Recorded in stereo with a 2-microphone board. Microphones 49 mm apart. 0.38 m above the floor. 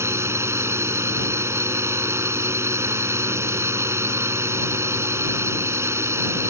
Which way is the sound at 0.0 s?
65° right (ahead or behind).